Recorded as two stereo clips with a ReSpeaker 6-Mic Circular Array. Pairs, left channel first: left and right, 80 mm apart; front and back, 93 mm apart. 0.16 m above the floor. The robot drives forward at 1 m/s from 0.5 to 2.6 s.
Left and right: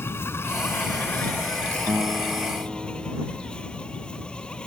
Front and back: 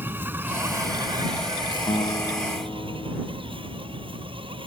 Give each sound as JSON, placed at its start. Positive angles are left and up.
{"t": 0.0, "sound": "an insect", "azimuth_deg": 125}
{"t": 1.9, "sound": "a guitar", "azimuth_deg": -25}